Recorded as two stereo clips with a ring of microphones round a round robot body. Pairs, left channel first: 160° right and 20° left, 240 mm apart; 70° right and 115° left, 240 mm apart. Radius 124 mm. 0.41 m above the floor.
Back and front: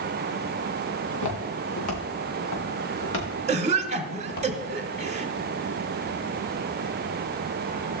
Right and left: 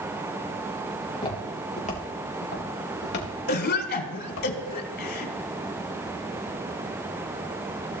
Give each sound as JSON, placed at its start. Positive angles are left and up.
{"t": 1.1, "sound": "footsteps", "azimuth_deg": -140, "distance_m": 4.0}
{"t": 3.5, "sound": "a cough", "azimuth_deg": -35, "distance_m": 1.4}